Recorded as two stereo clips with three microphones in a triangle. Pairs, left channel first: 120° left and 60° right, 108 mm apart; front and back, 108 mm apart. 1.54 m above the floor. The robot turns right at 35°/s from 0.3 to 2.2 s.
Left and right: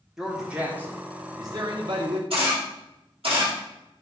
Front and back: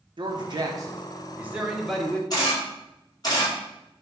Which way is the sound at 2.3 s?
45° right.